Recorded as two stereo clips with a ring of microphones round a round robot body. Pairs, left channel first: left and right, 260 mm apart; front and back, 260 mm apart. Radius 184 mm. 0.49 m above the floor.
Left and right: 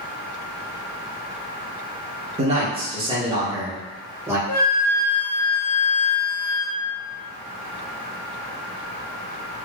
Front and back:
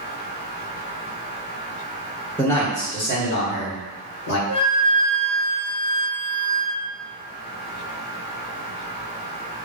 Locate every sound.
2.4 s a man speaking: 80° right, 0.7 m; by 4.4 s 10° right, 1.8 m
4.5 s a flute: 30° left, 1.8 m